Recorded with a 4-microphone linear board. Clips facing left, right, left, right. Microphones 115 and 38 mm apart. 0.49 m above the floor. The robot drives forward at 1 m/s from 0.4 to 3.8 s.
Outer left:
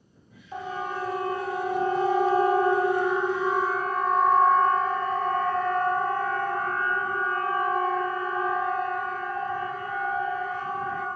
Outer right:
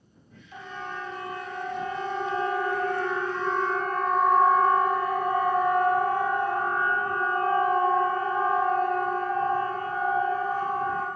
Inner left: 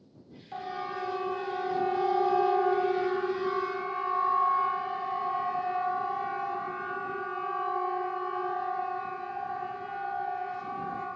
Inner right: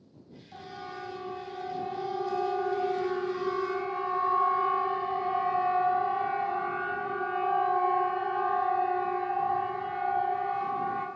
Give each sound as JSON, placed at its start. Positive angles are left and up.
{"t": 0.5, "sound": "a siren", "side_deg": 45, "distance_m": 3.5}